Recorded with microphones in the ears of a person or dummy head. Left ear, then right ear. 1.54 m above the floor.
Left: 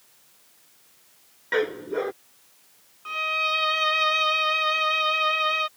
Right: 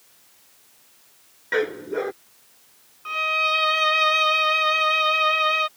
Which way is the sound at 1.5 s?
5° left (ahead or behind).